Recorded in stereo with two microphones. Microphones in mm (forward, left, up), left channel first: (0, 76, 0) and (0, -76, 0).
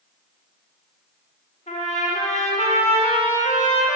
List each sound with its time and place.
1.7 s a trumpet: 45° left (ahead or behind), 1.5 m